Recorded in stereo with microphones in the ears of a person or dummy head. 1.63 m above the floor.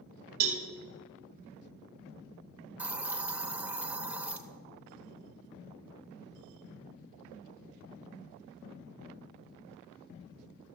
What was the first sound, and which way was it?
A cowbell, 45° right (ahead or behind).